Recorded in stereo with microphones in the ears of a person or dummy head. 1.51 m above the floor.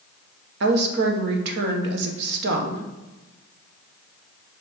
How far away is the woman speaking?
About 1.2 m.